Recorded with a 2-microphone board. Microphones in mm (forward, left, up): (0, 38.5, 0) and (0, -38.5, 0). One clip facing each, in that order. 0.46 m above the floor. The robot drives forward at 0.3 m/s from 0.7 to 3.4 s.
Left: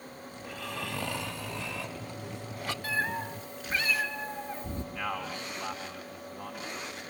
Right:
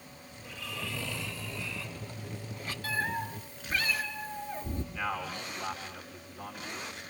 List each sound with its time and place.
0.4 s snoring: 55° left (ahead or behind), 1.6 m; by 2.7 s 75° left (ahead or behind), 1.4 m
2.8 s a cat meowing: 20° left (ahead or behind), 4.5 m; by 4.8 s 15° left (ahead or behind), 4.5 m
4.9 s a man speaking: 10° left (ahead or behind), 4.5 m